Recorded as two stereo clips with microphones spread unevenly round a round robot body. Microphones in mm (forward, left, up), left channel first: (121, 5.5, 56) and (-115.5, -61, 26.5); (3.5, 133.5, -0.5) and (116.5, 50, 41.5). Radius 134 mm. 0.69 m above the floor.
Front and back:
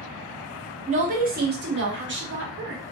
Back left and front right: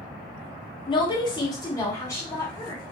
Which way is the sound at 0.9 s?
150° left.